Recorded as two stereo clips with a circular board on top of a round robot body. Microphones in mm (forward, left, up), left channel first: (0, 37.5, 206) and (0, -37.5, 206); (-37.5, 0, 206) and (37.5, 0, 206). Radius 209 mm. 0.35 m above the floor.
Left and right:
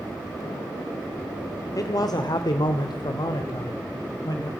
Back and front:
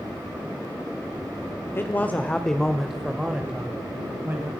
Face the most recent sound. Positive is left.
turn(degrees=65)